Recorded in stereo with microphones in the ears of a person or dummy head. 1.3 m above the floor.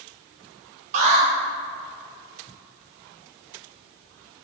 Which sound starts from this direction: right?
An alarm, at 0.9 s.